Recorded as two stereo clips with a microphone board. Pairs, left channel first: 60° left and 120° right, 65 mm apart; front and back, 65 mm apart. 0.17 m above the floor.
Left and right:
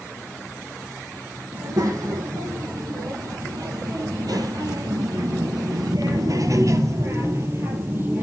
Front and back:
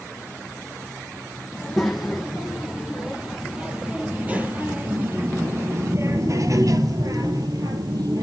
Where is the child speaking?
90° right, 4 m; by 8.2 s 175° right, 2.5 m.